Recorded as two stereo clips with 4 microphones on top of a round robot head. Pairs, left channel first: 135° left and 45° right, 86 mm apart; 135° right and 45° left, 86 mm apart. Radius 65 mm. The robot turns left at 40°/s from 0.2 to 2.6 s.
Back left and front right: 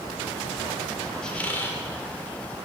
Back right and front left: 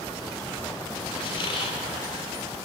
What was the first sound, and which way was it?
A squeak, 140° right.